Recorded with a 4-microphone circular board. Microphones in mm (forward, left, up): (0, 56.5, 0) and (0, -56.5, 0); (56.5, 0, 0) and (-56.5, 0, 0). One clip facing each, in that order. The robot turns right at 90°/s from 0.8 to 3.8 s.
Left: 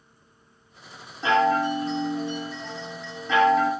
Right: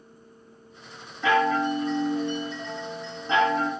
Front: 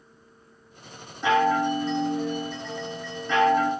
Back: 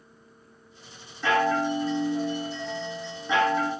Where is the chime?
50° left, 1.4 m; by 3.7 s 85° right, 1.4 m.